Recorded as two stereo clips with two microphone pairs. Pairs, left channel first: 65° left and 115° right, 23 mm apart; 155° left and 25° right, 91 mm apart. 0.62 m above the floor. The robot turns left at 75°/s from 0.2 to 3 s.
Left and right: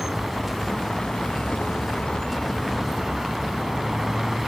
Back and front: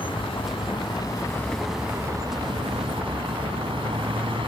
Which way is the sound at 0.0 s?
170° left.